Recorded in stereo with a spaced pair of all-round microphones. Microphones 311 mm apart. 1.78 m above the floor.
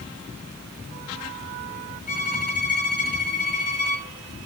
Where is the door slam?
I don't hear a door slam.